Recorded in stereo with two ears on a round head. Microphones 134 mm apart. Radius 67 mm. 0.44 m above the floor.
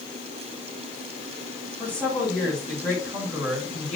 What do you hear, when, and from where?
1.8 s a woman speaking: 10° left (ahead or behind), 4 m